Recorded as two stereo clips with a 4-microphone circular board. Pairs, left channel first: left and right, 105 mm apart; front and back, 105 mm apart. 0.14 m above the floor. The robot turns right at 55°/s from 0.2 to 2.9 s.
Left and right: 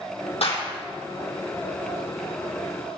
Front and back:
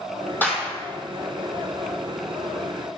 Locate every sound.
0.4 s a clap: 70° left, 3.5 m; by 0.7 s 85° left, 3.5 m